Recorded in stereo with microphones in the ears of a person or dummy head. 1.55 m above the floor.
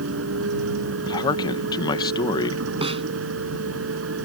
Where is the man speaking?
20° left (ahead or behind).